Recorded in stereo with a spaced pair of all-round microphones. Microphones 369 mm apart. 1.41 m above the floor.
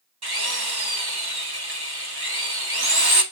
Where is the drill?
90° right, 3 m.